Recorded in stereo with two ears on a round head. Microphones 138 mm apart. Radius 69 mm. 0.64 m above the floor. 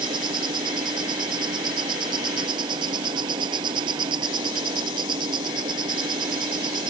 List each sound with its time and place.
0.0 s an insect: 30° right (ahead or behind)